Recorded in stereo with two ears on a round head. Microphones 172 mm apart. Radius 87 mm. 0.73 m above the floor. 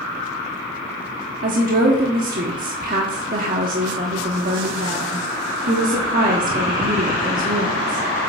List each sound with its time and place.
1.4 s a woman speaking: 45° right (ahead or behind), 1.3 m